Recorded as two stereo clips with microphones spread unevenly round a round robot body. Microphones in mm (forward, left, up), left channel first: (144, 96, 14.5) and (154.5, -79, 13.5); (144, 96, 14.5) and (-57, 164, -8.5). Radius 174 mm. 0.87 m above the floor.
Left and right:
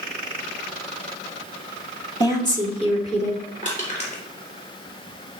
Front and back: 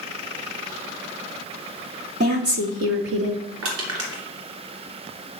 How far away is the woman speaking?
About 1.0 m.